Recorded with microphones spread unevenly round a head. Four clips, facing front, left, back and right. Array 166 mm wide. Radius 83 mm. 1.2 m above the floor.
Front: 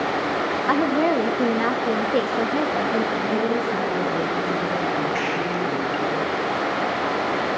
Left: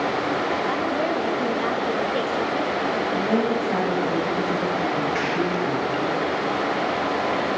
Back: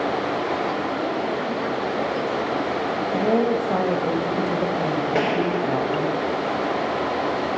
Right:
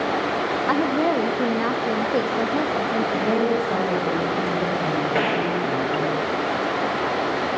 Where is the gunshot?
155° right, 1.3 m.